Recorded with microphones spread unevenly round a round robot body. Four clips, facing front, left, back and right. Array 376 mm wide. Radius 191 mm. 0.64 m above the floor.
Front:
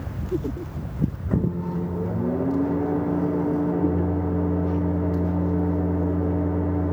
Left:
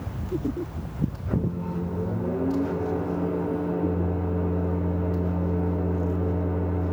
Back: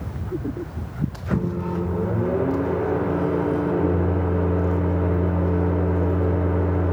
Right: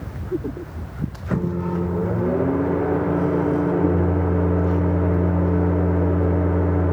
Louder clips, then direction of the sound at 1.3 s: Right 8 dB, back 3 dB; 120° right.